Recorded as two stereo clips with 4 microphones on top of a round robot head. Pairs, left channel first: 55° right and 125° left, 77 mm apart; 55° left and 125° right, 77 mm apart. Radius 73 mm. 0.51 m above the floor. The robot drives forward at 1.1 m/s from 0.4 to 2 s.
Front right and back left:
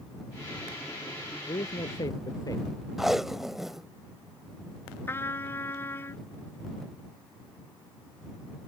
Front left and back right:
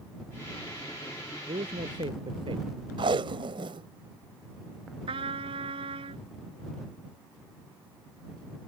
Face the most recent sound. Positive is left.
turn(degrees=-115)